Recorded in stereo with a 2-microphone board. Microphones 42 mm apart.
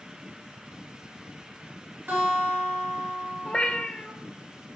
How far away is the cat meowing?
About 0.6 m.